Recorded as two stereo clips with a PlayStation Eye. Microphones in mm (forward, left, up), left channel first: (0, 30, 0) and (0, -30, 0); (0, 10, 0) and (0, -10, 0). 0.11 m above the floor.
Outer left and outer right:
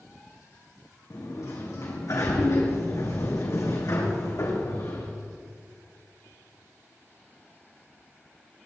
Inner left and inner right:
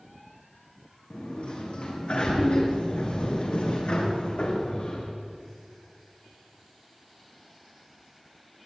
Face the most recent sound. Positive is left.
turn(degrees=65)  # may be behind; listen again after turning